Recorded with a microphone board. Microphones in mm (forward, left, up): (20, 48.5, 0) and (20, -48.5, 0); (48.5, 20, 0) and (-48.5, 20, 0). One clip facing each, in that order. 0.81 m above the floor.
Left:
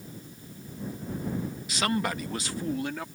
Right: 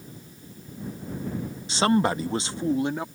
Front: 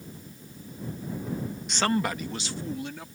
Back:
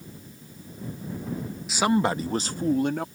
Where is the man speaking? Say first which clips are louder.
Right 7 dB, back 4 dB; 95° right; by 3.1 s 155° right.